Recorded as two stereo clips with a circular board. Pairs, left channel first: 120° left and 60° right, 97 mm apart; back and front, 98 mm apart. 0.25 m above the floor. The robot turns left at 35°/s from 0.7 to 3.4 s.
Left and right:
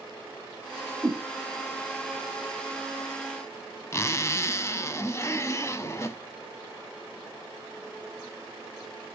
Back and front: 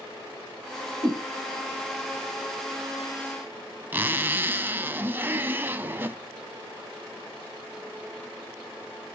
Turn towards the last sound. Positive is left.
turn(degrees=65)